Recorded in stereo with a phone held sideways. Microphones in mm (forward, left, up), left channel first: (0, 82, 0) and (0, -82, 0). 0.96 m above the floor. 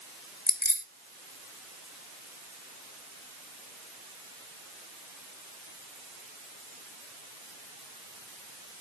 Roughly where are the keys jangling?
Left.